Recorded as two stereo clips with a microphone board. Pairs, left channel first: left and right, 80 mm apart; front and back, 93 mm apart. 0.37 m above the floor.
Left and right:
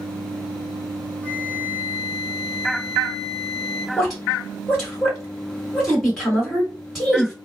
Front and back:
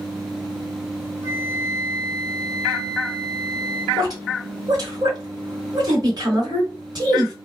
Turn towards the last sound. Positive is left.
turn(degrees=180)